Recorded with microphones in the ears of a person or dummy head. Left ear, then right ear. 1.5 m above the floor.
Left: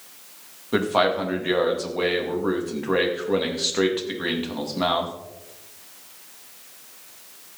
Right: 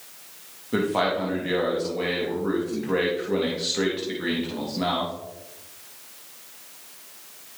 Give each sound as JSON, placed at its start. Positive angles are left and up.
{"t": 0.7, "sound": "a man speaking", "side_deg": 35, "distance_m": 2.5}